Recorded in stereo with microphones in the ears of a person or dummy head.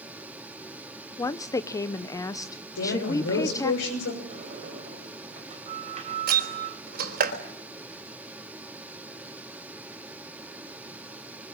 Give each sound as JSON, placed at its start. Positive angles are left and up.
{"t": 1.2, "sound": "a woman speaking", "side_deg": 20, "distance_m": 0.9}
{"t": 2.8, "sound": "a woman speaking", "side_deg": 90, "distance_m": 6.0}
{"t": 4.3, "sound": "a sliding door", "side_deg": -40, "distance_m": 3.5}
{"t": 6.3, "sound": "a door slam", "side_deg": -55, "distance_m": 4.5}